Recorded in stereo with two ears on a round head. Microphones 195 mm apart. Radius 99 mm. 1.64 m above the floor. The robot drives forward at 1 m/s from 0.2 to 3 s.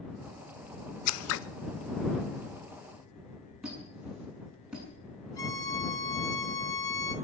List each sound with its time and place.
1.1 s scissors: 80° left, 0.7 m; by 1.4 s 60° left (ahead or behind), 0.8 m
3.6 s a squeak: 5° right (ahead or behind), 7 m
5.4 s a violin: 15° left (ahead or behind), 1.5 m